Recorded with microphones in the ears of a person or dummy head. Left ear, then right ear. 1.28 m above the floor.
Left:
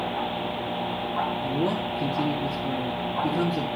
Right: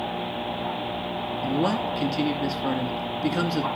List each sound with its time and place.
1.4 s a man speaking: 45° right (ahead or behind), 1.9 m